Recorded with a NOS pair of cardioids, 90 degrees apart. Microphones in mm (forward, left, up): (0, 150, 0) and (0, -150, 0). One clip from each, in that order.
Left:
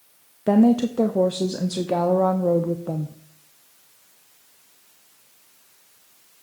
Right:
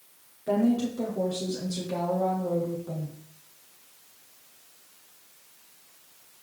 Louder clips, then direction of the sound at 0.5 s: Left 7 dB; 60° left.